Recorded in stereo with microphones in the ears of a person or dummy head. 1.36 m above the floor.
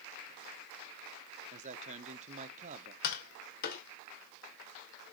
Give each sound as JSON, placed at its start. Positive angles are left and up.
{"t": 1.5, "sound": "a man speaking", "side_deg": -35, "distance_m": 1.2}
{"t": 3.0, "sound": "tapping", "side_deg": 55, "distance_m": 2.0}